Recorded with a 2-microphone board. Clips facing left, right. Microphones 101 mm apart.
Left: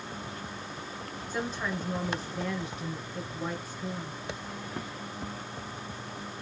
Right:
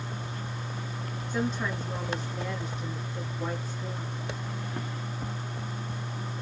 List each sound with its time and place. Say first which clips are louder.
1.3 s a woman speaking: right 3 dB; centre (ahead or behind), 1.2 m